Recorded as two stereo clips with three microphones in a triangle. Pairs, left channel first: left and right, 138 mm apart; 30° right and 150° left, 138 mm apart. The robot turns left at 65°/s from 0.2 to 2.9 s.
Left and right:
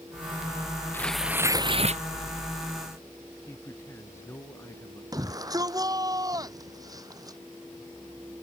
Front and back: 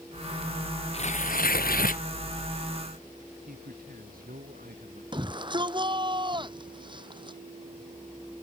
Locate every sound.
0.9 s tearing paper: 15° left; by 2.0 s 55° right
3.5 s a man speaking: 160° left
5.1 s a shout: 155° right